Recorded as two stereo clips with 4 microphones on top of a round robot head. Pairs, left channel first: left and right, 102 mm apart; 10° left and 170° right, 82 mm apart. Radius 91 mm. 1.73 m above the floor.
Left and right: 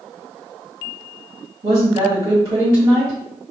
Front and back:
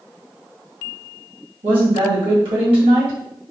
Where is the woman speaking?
150° right, 2 m.